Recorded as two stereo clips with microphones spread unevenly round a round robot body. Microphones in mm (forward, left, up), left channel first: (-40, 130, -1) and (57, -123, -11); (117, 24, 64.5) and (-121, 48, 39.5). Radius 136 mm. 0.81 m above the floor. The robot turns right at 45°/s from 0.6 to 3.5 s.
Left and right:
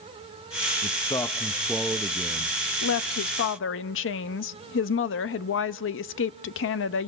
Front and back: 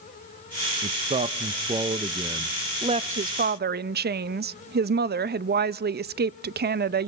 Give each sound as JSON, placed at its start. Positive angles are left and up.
{"t": 0.8, "sound": "a man speaking", "azimuth_deg": 165, "distance_m": 0.6}
{"t": 2.8, "sound": "a woman speaking", "azimuth_deg": 115, "distance_m": 0.5}